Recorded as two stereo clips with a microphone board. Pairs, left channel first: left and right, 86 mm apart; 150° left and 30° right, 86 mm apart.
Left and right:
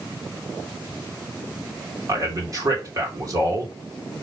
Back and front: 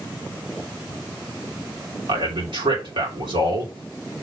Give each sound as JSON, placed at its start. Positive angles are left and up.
{"t": 2.1, "sound": "a man speaking", "azimuth_deg": -45, "distance_m": 3.0}